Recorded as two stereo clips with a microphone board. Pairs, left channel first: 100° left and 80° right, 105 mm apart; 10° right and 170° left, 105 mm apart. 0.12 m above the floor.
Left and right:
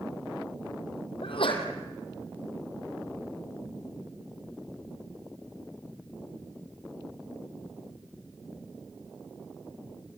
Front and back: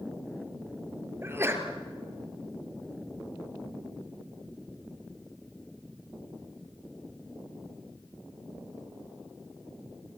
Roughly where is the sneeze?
Left.